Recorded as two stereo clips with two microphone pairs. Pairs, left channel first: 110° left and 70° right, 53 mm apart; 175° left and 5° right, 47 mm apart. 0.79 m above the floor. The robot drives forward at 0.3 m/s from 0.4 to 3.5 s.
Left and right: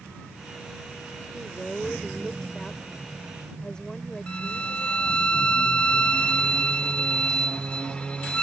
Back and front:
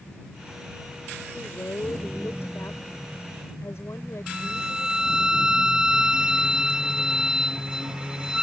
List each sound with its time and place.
1.3 s a woman speaking: 170° right; by 5.3 s 175° right
4.3 s a violin: 55° left